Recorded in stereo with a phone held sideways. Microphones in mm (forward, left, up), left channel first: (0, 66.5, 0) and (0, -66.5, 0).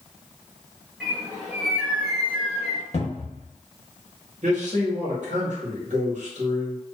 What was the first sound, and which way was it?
A bird, 5° right (ahead or behind).